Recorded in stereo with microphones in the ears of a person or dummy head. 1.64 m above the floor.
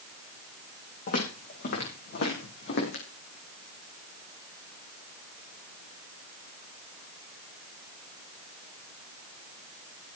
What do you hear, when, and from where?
1.1 s footsteps: 50° left (ahead or behind), 7 m; by 3.0 s 60° left (ahead or behind), 6.5 m